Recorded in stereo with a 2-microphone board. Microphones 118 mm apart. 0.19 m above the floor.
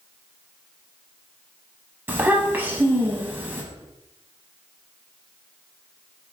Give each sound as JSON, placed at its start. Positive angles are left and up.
{"t": 2.1, "sound": "a child speaking", "side_deg": -15, "distance_m": 0.6}